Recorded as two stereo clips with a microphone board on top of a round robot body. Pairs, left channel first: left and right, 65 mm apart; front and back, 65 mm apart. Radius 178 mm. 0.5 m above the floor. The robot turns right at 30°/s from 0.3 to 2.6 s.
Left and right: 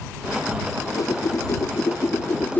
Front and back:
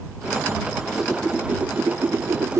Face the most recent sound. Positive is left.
turn(degrees=145)